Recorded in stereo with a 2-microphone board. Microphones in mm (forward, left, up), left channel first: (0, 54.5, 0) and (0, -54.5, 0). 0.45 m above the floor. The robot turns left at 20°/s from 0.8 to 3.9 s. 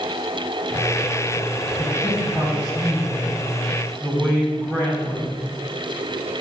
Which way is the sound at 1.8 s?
20° right (ahead or behind).